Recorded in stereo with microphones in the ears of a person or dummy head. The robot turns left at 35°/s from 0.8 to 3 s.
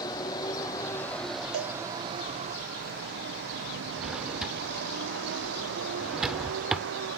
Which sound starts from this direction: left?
A vehicle, at 0.0 s.